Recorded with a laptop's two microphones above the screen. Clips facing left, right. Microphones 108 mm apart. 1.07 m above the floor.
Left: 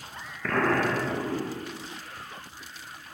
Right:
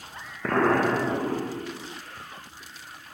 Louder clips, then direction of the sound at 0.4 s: Right 3 dB; 25° right (ahead or behind).